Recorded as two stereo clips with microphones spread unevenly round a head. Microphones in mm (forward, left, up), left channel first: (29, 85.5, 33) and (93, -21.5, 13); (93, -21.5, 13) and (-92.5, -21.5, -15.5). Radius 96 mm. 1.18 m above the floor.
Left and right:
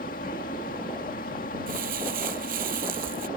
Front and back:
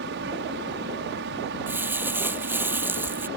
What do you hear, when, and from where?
0.0 s a fan: 150° left
1.7 s crumpling: 100° right